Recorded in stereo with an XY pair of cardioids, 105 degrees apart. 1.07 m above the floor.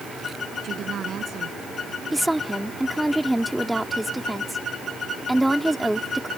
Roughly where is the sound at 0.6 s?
Ahead right.